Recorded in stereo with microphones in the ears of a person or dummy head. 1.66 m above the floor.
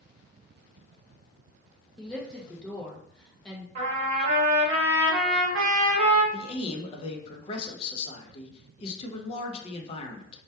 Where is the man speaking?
35° left (ahead or behind), 0.5 m.